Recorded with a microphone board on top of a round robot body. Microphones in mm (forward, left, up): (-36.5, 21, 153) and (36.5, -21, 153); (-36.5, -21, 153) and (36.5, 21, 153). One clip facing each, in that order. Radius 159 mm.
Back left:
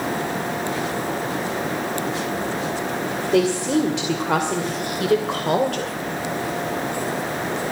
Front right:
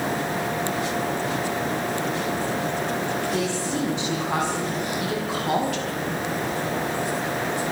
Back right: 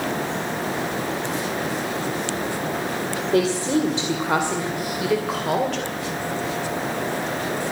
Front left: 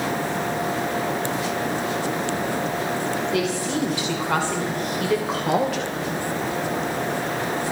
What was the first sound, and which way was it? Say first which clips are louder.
A woman speaking: back left 7 dB, back right 4 dB; 155° left.